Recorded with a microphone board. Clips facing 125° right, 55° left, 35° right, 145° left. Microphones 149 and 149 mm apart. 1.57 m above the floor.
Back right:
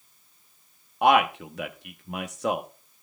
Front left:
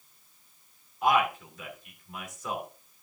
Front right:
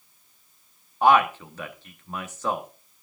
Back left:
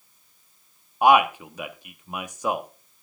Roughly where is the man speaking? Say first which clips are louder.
Back right 5 dB, back left 1 dB; behind right.